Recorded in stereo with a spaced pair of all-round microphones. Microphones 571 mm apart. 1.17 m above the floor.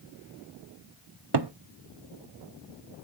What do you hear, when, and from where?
1.3 s a cupboard door: 50° right (ahead or behind), 0.6 m